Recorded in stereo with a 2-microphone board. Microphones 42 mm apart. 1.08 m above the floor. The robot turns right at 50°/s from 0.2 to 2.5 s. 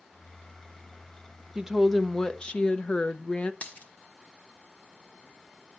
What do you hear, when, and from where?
1.6 s a woman speaking: 20° right, 0.7 m; by 3.5 s 30° left, 0.7 m
3.6 s a dropped coin: 35° left (ahead or behind), 1.4 m